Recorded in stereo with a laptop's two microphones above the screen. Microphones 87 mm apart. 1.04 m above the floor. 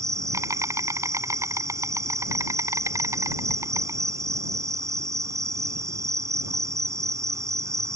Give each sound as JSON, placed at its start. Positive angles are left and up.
{"t": 0.0, "sound": "an insect", "side_deg": -40}